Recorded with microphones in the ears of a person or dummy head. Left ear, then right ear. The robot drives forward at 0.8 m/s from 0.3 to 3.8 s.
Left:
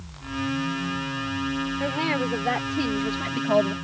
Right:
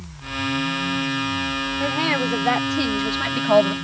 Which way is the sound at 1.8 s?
15° right (ahead or behind).